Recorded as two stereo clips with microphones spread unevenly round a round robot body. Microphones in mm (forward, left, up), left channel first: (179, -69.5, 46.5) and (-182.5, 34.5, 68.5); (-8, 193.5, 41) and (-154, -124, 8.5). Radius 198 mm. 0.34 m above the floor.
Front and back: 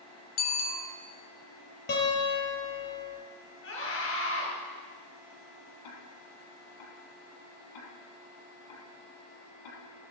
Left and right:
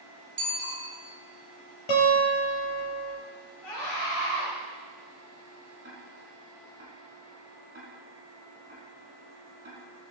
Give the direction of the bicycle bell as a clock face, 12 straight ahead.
1 o'clock.